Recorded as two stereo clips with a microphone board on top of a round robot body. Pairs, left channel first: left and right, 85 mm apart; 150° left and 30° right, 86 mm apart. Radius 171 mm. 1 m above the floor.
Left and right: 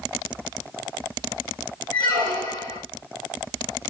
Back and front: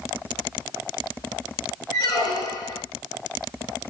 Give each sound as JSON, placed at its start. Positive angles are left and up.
{"t": 1.9, "sound": "a squeak", "azimuth_deg": -150, "distance_m": 1.1}